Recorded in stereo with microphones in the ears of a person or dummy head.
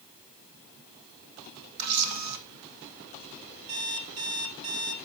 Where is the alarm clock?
75° right (ahead or behind), 2 m.